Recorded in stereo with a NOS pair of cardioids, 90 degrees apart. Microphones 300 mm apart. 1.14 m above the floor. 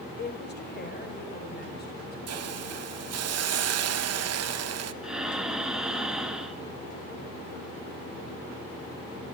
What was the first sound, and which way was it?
A woman speaking, 35° left.